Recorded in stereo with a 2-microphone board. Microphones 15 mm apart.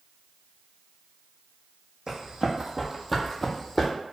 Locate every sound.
2.1 s running footsteps: 50° right (ahead or behind), 0.8 m; by 3.9 s 35° left (ahead or behind), 0.7 m